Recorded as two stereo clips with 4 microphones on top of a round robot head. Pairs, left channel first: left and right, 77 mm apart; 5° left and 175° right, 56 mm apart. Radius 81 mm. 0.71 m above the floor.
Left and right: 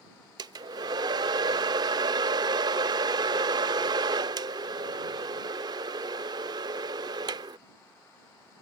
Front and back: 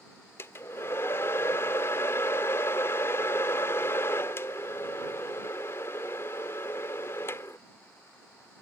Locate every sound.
0.4 s a hair dryer: 55° right